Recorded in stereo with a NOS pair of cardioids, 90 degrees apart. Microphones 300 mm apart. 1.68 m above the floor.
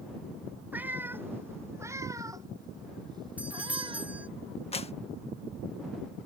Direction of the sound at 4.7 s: 20° left.